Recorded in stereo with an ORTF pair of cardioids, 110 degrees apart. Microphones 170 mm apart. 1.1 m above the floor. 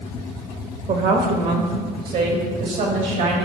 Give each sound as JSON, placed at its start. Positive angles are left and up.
{"t": 0.9, "sound": "a woman speaking", "azimuth_deg": -55, "distance_m": 1.4}